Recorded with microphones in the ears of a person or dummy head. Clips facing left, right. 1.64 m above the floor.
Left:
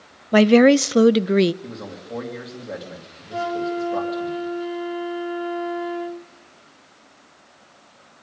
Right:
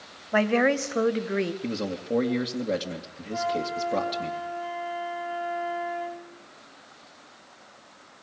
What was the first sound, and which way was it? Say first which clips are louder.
A woman speaking: left 10 dB; 50° left (ahead or behind).